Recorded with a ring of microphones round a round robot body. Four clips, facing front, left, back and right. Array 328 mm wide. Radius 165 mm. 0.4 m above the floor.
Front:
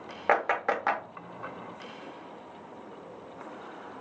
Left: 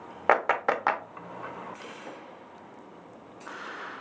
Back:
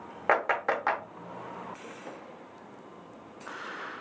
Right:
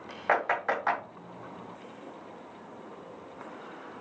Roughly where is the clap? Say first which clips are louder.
Left 3 dB, even; left.